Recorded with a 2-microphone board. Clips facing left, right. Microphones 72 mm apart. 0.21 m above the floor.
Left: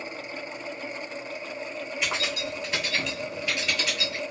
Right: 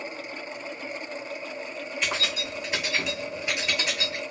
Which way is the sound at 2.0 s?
5° left (ahead or behind).